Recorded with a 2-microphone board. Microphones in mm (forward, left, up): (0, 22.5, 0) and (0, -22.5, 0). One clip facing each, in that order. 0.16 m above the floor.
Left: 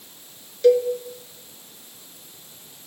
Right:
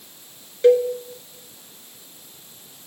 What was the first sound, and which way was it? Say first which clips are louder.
A cowbell: right 1 dB; 30° right (ahead or behind).